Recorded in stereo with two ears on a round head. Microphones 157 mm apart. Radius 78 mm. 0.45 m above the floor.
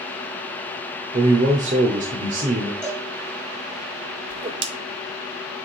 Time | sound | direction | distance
1.1 | a man speaking | 45° right (ahead or behind) | 1.1 m
2.8 | a cowbell | 5° left (ahead or behind) | 3 m
4.3 | a whoosh | 30° right (ahead or behind) | 0.8 m